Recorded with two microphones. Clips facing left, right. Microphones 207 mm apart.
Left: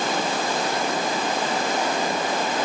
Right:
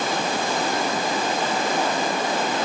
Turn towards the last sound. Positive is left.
No sound to turn to.